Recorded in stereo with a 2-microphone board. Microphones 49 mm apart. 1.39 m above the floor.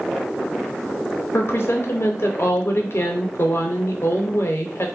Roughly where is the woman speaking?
Left.